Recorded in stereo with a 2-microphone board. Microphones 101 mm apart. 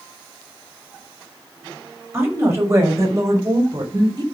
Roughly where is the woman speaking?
Right.